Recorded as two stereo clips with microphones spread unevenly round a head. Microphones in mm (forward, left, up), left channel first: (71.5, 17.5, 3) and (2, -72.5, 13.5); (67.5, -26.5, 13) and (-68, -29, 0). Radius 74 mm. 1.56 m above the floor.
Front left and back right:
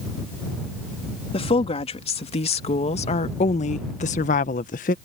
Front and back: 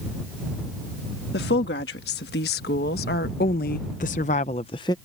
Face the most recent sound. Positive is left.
turn(degrees=65)